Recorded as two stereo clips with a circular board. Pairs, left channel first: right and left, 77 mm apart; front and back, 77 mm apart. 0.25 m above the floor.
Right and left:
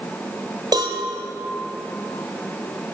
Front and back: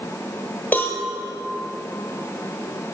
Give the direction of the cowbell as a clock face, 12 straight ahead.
10 o'clock.